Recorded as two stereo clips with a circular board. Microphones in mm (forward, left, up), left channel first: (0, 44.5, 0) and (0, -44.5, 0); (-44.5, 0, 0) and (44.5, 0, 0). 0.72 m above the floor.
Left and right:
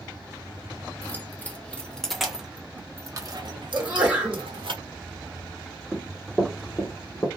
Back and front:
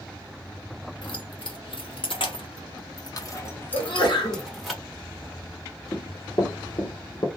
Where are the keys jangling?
155° left, 1.3 m; by 4.7 s 90° right, 1.2 m.